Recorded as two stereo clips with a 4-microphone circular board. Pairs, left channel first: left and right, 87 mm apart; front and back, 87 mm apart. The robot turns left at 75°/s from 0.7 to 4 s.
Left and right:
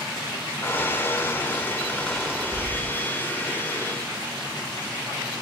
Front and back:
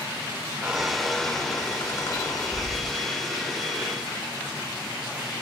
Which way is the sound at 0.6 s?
120° left.